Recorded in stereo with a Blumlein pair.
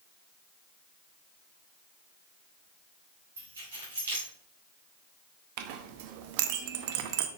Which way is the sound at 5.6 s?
50° right.